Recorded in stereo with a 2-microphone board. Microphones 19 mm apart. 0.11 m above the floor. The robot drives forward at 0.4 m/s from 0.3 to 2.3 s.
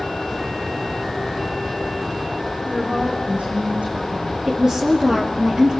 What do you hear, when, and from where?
2.6 s a woman speaking: 70° right (ahead or behind), 8 m
4.5 s a woman speaking: 25° right (ahead or behind), 3 m